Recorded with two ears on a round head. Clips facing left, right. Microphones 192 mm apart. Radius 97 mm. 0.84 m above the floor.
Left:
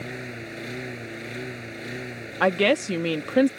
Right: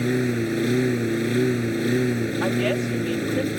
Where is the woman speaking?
65° left (ahead or behind).